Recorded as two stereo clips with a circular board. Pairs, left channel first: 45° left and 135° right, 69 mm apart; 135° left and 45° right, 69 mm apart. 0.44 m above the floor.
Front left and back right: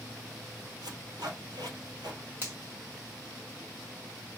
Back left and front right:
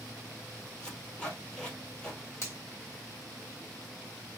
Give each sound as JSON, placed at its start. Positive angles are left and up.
{"t": 0.8, "sound": "tape being pulled", "azimuth_deg": -145, "distance_m": 1.8}
{"t": 2.4, "sound": "a finger snap", "azimuth_deg": 175, "distance_m": 1.7}